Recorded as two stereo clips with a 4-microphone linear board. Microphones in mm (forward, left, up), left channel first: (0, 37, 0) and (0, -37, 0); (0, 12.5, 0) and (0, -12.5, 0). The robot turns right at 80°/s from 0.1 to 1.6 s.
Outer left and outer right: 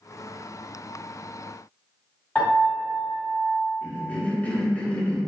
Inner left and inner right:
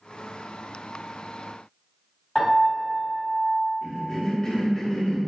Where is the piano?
20° left (ahead or behind), 1.3 m.